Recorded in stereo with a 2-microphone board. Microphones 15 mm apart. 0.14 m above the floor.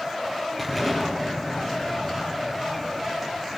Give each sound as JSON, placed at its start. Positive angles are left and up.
{"t": 0.6, "sound": "an explosion", "side_deg": 10, "distance_m": 3.5}